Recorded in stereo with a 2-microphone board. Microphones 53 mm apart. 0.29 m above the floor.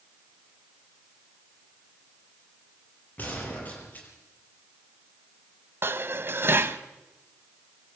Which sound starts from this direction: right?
Dishes clattering, at 5.8 s.